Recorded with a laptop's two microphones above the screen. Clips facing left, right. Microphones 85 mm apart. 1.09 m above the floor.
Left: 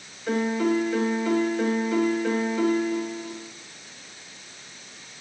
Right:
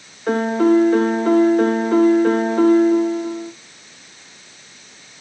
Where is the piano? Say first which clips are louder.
Right 8 dB; 45° right (ahead or behind), 0.8 m.